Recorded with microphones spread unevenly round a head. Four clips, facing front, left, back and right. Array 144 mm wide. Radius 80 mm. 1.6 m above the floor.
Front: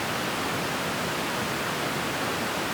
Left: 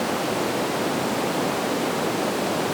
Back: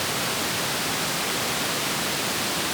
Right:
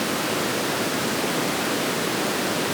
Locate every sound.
Only background noise.